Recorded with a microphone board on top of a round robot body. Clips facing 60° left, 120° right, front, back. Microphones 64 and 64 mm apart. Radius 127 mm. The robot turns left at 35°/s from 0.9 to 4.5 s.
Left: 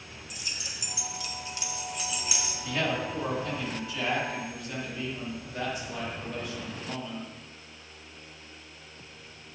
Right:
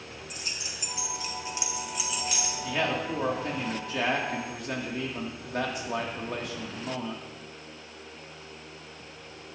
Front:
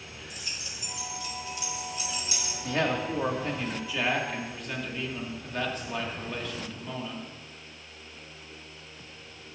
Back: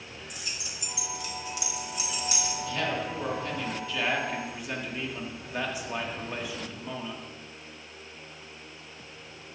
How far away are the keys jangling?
About 1.0 m.